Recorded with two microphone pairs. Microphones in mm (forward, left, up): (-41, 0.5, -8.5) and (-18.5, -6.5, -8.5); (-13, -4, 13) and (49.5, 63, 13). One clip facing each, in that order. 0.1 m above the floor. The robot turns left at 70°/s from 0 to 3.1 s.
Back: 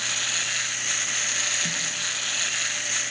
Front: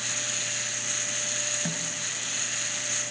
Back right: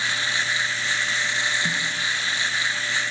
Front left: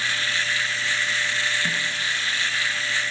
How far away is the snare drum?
About 1.5 m.